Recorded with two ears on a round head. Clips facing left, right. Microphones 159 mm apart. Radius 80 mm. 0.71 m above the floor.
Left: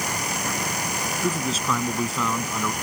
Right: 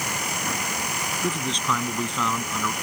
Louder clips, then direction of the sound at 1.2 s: Left 1 dB; 5° left (ahead or behind).